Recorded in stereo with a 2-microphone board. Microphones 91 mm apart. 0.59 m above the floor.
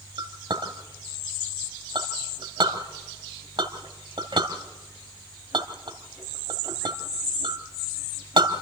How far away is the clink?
About 2 m.